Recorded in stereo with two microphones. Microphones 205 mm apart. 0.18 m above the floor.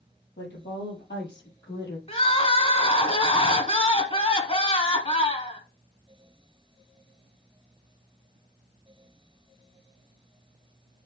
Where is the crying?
30° left (ahead or behind), 1.2 m.